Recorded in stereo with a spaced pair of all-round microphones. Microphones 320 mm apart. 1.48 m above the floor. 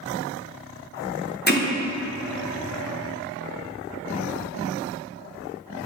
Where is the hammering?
30° left (ahead or behind), 0.9 m.